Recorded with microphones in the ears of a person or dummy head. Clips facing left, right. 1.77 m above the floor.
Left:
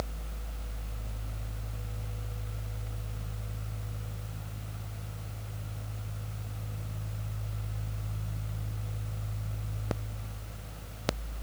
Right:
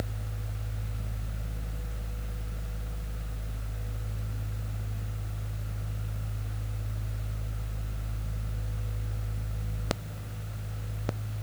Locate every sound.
Only background noise.